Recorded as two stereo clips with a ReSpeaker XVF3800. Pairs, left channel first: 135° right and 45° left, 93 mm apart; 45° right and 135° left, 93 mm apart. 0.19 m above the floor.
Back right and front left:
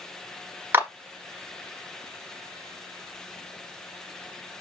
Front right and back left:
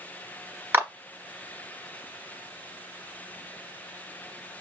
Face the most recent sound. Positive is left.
turn(degrees=90)